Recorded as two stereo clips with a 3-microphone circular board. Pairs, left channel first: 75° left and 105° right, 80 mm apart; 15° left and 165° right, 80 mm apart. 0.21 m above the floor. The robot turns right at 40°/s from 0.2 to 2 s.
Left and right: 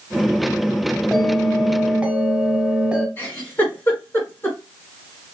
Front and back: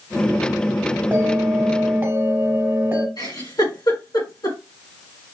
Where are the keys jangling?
I don't hear keys jangling.